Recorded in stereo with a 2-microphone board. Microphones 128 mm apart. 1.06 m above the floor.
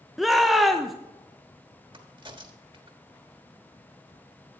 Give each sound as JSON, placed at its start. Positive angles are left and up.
{"t": 0.2, "sound": "a shout", "side_deg": 0, "distance_m": 0.6}
{"t": 1.9, "sound": "a crack", "side_deg": -35, "distance_m": 1.2}